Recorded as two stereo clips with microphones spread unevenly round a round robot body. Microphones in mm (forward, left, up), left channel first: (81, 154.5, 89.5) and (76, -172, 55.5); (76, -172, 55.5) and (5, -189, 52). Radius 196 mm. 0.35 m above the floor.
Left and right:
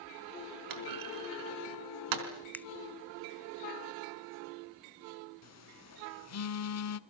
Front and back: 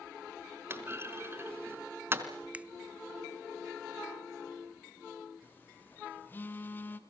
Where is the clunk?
110° right, 4 m.